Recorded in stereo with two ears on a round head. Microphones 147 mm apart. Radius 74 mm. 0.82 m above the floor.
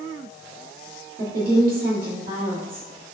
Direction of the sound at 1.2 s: 60° right (ahead or behind).